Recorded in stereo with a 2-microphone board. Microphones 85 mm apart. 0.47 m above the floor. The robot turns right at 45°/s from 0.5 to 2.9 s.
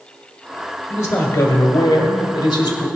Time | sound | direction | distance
0.9 | a man speaking | 30° left | 1.4 m